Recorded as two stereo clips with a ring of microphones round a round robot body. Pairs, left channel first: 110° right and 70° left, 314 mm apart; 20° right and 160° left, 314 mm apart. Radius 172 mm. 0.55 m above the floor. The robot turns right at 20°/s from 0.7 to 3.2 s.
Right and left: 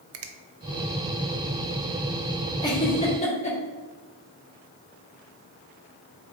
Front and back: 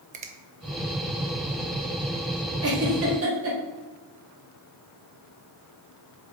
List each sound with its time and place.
0.1 s a finger snap: 95° left, 0.7 m
2.6 s a giggle: 175° left, 1.7 m; by 3.6 s 175° right, 1.7 m